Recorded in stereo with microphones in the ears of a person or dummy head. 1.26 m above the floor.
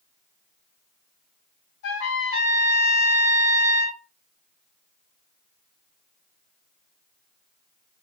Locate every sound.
1.8 s a trumpet: 60° left (ahead or behind), 1.3 m